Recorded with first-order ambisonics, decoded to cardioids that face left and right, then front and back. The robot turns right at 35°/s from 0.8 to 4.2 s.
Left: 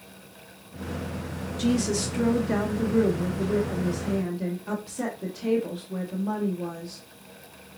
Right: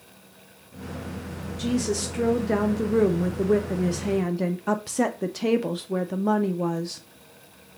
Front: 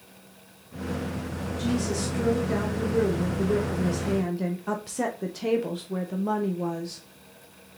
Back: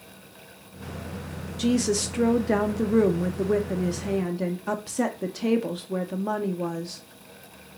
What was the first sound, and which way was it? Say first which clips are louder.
A woman speaking: even, back 5 dB; 160° left.